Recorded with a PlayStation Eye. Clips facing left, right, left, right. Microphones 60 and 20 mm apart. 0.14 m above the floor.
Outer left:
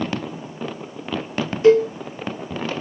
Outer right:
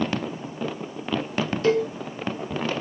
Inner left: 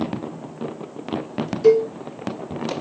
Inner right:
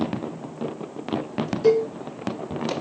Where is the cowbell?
20° left (ahead or behind), 1.0 m.